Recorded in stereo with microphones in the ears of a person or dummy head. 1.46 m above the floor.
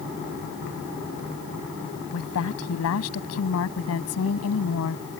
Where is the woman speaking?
80° left.